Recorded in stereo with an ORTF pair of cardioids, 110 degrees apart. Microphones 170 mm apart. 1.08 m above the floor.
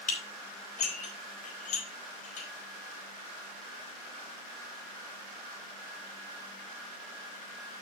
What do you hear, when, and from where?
0.1 s dishes clattering: 45° left, 4 m